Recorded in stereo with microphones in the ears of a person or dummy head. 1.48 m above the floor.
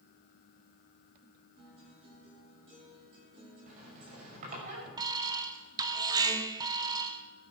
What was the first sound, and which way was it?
A guitar, 30° right (ahead or behind).